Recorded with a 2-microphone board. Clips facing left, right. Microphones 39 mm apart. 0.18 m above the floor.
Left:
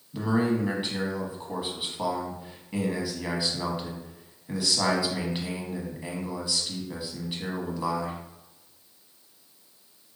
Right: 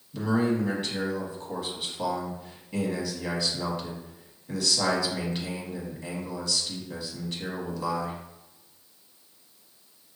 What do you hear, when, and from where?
0.1 s a man speaking: 20° left (ahead or behind), 1.0 m